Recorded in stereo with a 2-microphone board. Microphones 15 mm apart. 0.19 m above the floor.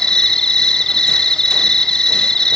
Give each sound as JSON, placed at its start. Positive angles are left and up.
{"t": 0.0, "sound": "an insect", "side_deg": 40, "distance_m": 1.5}